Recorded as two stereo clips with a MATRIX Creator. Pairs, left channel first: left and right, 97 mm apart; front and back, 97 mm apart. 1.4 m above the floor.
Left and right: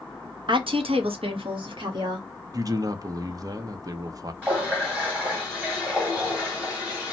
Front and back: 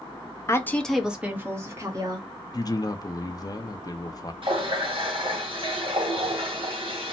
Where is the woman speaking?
55° right, 0.7 m; by 2.3 s 130° right, 1.5 m.